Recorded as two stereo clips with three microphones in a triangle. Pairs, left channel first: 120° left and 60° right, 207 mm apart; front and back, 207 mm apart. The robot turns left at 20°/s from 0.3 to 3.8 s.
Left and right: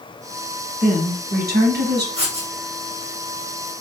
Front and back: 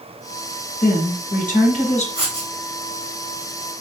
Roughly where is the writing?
Behind right.